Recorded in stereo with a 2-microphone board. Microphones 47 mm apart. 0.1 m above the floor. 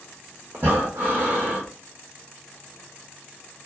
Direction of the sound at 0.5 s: 50° right (ahead or behind).